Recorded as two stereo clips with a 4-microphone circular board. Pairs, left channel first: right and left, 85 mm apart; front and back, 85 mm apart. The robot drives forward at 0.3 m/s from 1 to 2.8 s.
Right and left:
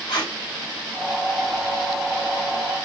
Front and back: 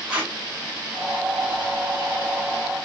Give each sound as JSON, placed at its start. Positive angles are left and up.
{"t": 0.1, "sound": "tape being pulled", "azimuth_deg": -105, "distance_m": 2.0}